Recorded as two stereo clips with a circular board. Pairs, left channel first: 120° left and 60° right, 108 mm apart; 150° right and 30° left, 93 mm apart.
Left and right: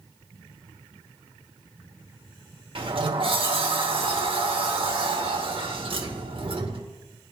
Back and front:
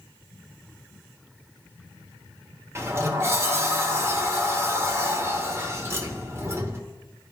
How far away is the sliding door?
About 1.0 m.